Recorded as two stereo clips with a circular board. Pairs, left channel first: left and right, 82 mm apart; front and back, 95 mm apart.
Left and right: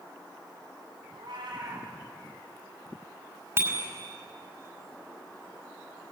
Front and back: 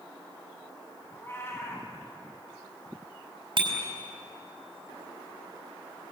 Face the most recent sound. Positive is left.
turn(degrees=-145)